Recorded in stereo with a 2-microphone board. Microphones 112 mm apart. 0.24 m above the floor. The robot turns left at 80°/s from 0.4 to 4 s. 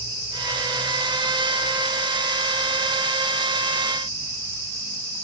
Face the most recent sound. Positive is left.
No sound to turn to.